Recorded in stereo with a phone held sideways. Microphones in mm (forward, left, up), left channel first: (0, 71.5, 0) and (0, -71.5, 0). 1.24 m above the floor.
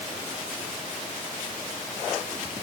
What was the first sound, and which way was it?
Only background noise.